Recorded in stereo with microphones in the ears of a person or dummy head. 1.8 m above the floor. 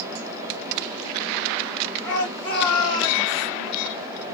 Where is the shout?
10° left (ahead or behind), 2 m; by 3.5 s 35° left (ahead or behind), 1.8 m.